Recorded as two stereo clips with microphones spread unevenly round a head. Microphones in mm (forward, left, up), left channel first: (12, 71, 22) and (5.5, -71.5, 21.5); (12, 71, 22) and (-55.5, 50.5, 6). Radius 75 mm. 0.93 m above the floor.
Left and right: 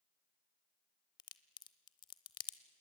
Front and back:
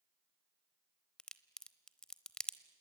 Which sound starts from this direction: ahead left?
A crack, at 1.2 s.